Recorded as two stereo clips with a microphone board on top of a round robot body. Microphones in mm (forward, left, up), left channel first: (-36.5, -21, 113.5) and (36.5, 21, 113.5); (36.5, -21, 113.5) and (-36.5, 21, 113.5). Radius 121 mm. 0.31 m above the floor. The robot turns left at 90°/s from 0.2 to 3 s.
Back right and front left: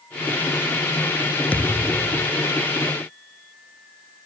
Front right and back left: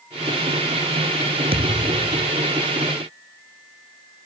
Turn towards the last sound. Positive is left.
turn(degrees=5)